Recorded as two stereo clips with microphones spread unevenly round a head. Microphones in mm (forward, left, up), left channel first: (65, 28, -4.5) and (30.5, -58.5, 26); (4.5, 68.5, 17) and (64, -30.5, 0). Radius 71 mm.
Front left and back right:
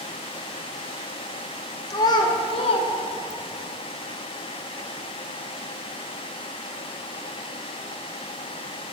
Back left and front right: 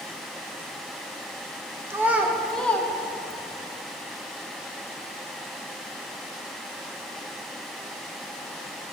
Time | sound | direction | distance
1.9 | a child speaking | 10° left | 1.0 m